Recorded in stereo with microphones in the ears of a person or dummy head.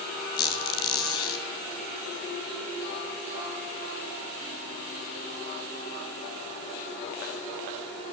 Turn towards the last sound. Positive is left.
turn(degrees=30)  # may be behind; listen again after turning